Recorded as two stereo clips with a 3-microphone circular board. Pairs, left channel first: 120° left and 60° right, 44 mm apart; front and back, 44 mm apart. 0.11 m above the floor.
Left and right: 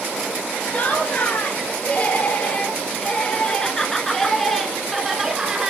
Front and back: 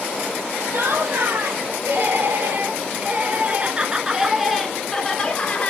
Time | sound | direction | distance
0.7 | laughter | 175° left | 3 m